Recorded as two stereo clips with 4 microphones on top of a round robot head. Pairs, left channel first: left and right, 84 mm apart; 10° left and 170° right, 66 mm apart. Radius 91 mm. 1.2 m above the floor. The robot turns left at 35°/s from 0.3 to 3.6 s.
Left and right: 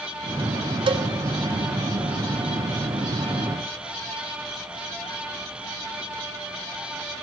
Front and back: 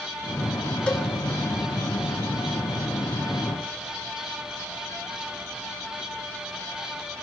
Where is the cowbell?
65° right, 0.9 m; by 1.1 s 75° right, 0.9 m.